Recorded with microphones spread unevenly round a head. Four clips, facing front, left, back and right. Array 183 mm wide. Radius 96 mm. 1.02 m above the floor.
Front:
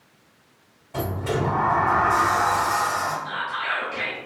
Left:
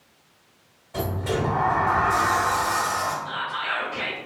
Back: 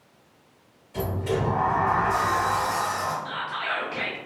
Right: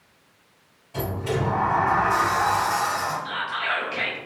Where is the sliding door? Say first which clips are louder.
Even, front 1 dB; 15° left, 2.0 m.